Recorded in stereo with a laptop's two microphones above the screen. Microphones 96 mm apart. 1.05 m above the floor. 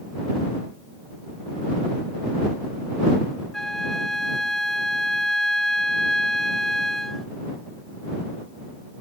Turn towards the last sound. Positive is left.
turn(degrees=5)  # may be behind; listen again after turning